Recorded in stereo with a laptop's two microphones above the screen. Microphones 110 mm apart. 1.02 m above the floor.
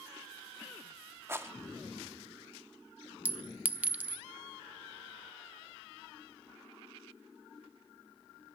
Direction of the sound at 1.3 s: 25° right (ahead or behind).